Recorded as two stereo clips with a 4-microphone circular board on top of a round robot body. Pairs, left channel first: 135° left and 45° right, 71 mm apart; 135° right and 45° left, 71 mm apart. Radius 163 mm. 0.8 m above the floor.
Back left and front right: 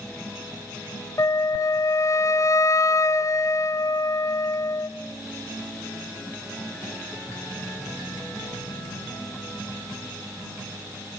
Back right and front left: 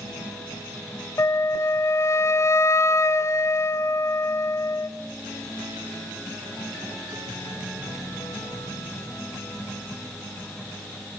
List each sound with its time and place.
1.2 s a flute: straight behind, 0.7 m